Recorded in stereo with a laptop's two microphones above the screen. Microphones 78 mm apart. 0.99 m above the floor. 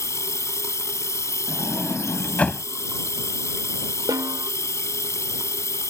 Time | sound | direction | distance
0.0 | running water | 40° left (ahead or behind) | ?
1.5 | a sliding door | 20° left (ahead or behind) | ?
4.1 | a snare drum | 60° right (ahead or behind) | ?